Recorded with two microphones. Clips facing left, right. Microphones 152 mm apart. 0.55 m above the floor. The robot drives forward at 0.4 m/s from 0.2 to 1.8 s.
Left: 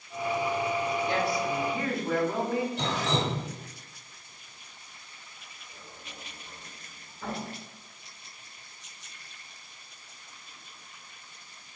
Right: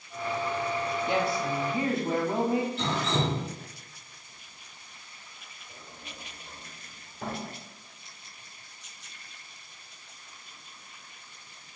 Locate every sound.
1.1 s a woman speaking: 25° right (ahead or behind), 1.0 m
2.8 s dripping: 65° left (ahead or behind), 1.5 m
5.7 s a sliding door: 70° right (ahead or behind), 1.6 m